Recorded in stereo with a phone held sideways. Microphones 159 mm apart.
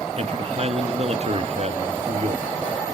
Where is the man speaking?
45° right (ahead or behind), 1.3 m.